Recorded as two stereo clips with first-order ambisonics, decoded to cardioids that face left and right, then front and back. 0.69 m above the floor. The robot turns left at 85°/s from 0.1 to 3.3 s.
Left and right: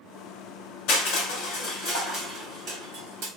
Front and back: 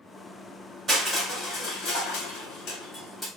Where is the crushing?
110° left, 1.7 m; by 3.3 s 90° right, 1.7 m.